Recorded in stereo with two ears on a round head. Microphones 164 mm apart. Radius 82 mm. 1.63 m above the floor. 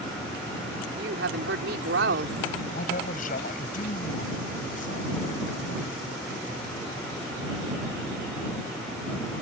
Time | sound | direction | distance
1.0 | a woman speaking | 70° right (ahead or behind) | ?
2.7 | a man speaking | 45° left (ahead or behind) | ?